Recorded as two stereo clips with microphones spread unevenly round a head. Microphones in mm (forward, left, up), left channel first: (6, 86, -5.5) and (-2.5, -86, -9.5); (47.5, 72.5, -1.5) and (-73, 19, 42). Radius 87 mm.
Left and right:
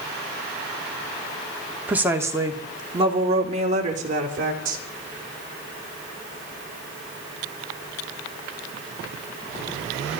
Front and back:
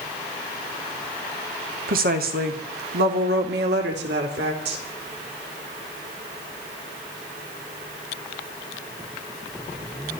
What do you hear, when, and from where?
1.9 s a woman speaking: 175° right, 2.5 m; by 4.8 s 135° right, 4 m